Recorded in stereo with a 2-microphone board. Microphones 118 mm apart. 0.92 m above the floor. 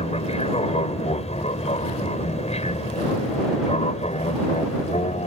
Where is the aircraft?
60° left (ahead or behind); by 5.3 s 65° left (ahead or behind).